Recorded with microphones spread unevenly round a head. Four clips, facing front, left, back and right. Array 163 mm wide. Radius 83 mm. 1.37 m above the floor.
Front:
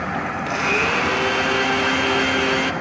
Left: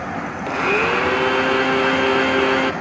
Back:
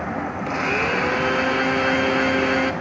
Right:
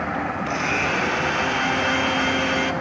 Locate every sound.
0.5 s a blender: 90° left, 0.7 m